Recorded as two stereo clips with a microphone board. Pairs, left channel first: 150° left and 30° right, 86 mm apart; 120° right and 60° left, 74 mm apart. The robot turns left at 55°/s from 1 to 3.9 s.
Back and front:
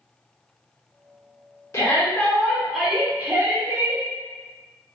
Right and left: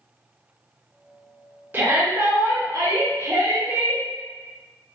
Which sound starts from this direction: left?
A shout, at 1.7 s.